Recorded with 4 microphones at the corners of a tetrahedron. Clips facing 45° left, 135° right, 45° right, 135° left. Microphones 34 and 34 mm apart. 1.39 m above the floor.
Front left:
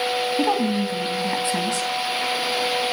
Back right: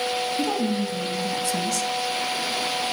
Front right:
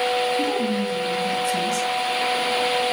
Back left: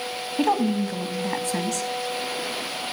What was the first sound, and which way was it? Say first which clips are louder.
A woman speaking: front left 3 dB, even; 105° left.